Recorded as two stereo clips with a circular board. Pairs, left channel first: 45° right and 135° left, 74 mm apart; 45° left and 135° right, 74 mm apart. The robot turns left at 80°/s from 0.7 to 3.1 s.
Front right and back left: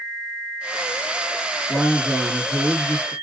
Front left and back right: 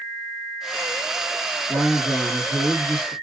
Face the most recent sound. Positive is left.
turn(degrees=125)